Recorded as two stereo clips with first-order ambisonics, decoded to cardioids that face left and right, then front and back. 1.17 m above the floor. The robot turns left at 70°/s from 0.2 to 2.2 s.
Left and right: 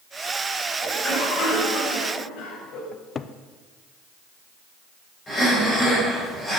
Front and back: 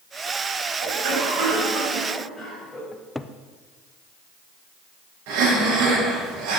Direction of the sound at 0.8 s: Straight behind.